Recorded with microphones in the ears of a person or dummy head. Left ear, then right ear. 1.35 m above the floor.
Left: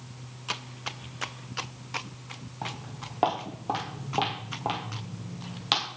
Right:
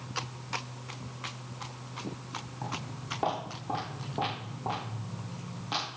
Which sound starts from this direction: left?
Footsteps, at 2.6 s.